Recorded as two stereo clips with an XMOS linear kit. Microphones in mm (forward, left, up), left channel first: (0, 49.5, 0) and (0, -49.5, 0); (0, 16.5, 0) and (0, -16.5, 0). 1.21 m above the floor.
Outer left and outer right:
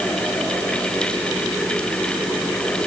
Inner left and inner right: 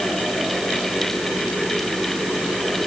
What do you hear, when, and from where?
Only background noise.